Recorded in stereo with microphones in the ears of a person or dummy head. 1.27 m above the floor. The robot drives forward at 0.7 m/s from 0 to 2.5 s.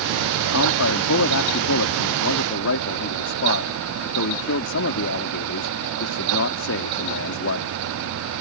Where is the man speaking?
80° left; by 7.7 s 65° left (ahead or behind).